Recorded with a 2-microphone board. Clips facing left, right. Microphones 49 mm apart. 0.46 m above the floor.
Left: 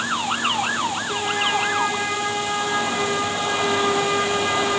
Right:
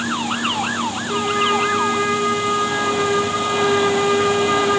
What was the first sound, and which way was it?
A trumpet, 10° right (ahead or behind).